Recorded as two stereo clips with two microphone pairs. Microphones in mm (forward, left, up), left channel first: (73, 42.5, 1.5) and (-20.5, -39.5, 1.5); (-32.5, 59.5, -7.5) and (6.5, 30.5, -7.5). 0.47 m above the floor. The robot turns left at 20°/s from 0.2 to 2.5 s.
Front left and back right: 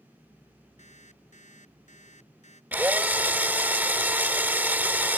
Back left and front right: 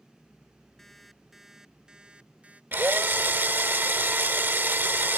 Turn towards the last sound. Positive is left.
turn(degrees=-65)